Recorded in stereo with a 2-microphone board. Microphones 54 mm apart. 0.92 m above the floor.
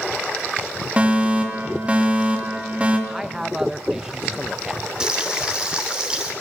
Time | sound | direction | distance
1.0 | a fire alarm | 25° right (ahead or behind) | 3 m
3.1 | a man speaking | 10° right (ahead or behind) | 0.9 m
5.0 | frying | 15° right (ahead or behind) | 2.5 m